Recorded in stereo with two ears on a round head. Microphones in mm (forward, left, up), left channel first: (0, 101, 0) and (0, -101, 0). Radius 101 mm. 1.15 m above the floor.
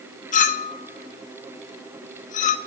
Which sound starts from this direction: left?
A clink, at 0.3 s.